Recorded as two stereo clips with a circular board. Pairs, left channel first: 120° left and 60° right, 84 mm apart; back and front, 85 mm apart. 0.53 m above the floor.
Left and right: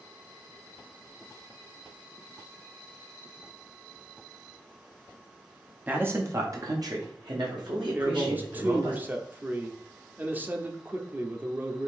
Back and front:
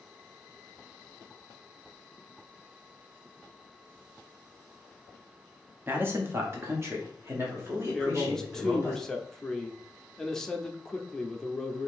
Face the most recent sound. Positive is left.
turn(degrees=-100)